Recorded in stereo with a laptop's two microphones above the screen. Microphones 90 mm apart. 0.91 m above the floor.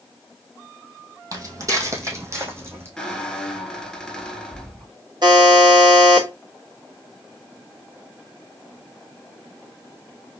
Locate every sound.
1.3 s footsteps: 40° right (ahead or behind), 1.7 m; by 2.9 s 30° right (ahead or behind), 3 m
3.0 s a squeak: 5° left (ahead or behind), 1.1 m
5.2 s a buzzer: 55° right (ahead or behind), 1.6 m